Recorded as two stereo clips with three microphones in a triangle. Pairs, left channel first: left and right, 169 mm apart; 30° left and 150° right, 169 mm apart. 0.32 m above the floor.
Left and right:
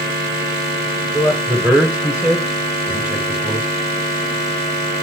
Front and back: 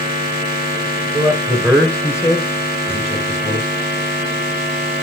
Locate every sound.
1.1 s a man speaking: 170° right, 1.3 m; by 3.7 s 10° right, 2.5 m